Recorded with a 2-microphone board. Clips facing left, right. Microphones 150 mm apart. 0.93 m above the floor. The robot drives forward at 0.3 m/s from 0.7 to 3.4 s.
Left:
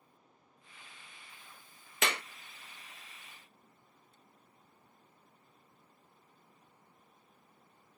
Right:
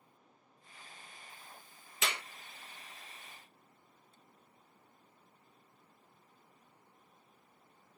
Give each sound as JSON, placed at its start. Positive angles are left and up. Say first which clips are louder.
{"t": 2.0, "sound": "a clap", "louder": "left 4 dB", "side_deg": 65, "distance_m": 0.7}